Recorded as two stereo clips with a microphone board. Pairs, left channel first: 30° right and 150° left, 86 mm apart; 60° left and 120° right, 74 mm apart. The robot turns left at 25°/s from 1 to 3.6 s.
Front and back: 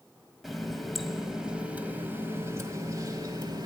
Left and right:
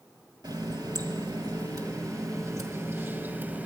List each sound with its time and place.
0.4 s a running tap: 120° right, 1.2 m; by 3.7 s 175° left, 1.2 m